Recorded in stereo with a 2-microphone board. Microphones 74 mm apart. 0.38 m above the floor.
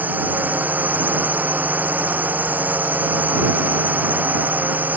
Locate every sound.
0.0 s a drone: 25° right (ahead or behind)